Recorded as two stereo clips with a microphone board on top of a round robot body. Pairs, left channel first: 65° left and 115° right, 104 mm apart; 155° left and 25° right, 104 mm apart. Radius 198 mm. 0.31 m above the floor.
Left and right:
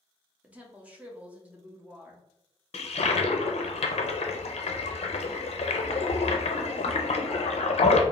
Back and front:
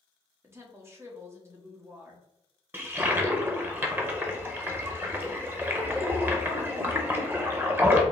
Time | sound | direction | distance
0.4 | a woman speaking | 50° right | 1.1 m
2.7 | a toilet flushing | 50° left | 0.5 m